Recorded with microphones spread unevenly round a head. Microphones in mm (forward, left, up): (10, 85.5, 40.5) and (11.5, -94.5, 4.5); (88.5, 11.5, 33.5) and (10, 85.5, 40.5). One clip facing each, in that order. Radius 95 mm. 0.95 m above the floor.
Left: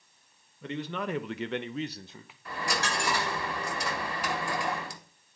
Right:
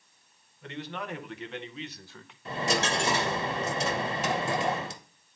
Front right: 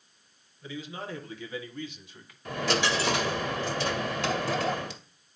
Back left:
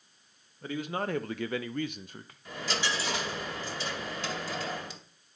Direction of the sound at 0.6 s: 100° left.